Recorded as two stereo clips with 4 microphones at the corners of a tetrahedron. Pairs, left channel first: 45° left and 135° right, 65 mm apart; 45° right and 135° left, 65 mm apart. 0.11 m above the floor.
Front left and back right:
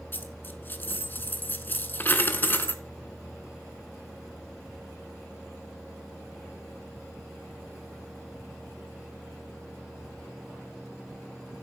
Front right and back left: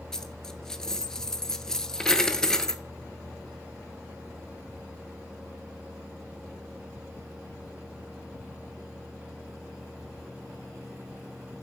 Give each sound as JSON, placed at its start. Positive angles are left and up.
{"t": 0.1, "sound": "a dropped coin", "azimuth_deg": 25, "distance_m": 0.7}